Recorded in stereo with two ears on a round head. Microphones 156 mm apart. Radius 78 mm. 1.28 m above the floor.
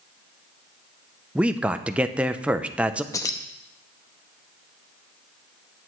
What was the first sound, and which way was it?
A man speaking, 5° right (ahead or behind).